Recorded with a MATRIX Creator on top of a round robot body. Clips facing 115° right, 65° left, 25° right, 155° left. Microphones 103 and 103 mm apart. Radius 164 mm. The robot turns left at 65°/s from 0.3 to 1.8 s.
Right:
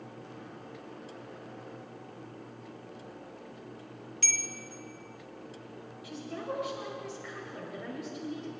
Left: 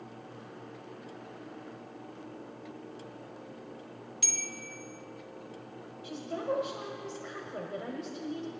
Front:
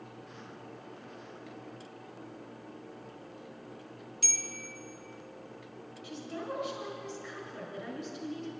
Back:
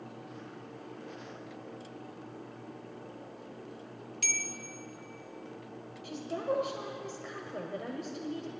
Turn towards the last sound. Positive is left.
turn(degrees=125)